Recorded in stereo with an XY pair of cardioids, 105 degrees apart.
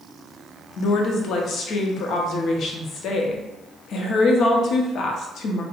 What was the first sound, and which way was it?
A woman speaking, 65° left.